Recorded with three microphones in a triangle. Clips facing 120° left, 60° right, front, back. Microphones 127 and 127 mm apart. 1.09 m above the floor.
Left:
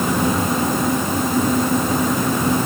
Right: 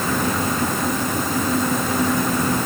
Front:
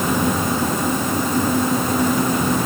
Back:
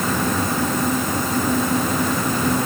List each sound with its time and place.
Only background noise.